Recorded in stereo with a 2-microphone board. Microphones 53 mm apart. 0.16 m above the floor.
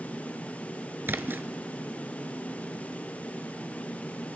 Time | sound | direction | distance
1.1 | a splash | 45° right (ahead or behind) | 0.5 m